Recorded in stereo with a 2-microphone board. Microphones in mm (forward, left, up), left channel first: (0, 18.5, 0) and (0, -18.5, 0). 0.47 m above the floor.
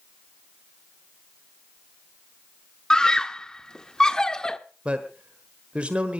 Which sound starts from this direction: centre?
A scream, at 2.9 s.